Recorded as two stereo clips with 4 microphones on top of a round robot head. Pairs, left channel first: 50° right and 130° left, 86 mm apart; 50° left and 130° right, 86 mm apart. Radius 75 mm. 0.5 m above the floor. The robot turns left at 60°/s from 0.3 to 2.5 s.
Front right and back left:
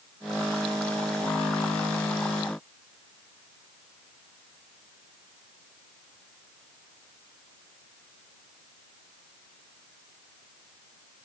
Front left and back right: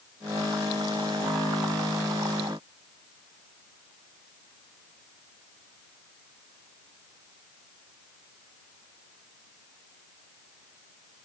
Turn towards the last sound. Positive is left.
No sound to turn to.